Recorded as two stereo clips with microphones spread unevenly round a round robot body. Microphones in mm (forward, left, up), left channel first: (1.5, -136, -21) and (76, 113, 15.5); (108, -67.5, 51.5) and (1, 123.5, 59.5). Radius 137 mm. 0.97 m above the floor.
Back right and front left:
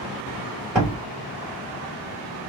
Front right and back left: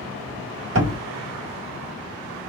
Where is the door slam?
160° left, 2.0 m.